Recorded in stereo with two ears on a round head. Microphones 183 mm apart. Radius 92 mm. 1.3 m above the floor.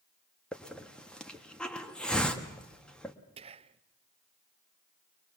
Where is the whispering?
30° right (ahead or behind), 0.6 m.